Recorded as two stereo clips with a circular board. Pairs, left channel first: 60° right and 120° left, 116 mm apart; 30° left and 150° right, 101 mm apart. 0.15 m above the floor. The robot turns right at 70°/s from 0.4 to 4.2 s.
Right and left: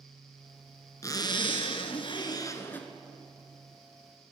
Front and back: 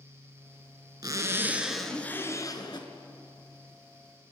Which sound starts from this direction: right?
A zipper, at 1.0 s.